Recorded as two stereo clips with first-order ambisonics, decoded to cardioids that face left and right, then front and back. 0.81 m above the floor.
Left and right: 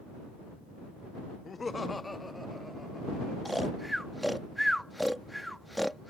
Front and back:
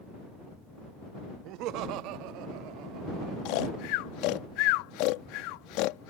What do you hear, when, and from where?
1.4 s laughter: 160° left; by 3.4 s straight behind
3.5 s snoring: straight ahead